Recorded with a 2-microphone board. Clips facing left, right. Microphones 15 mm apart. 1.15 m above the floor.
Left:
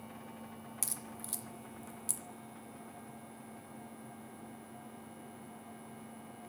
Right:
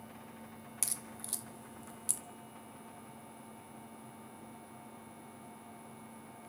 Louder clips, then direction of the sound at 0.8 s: Right 2 dB; 15° right (ahead or behind).